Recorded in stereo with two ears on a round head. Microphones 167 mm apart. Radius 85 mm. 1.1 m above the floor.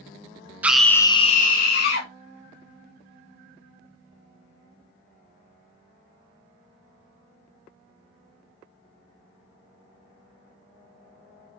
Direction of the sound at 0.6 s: 10° right (ahead or behind).